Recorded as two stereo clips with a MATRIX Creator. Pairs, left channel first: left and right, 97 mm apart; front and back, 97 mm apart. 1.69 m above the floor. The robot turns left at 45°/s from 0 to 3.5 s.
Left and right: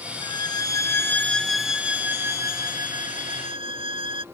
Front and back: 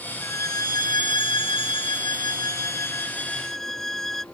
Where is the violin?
60° left; by 4.2 s 85° right.